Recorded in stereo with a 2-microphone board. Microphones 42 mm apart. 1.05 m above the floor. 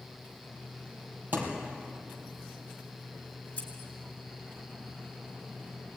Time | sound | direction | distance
1.3 | a thud | 50° right (ahead or behind) | 4 m
3.6 | scissors | 35° left (ahead or behind) | 4.5 m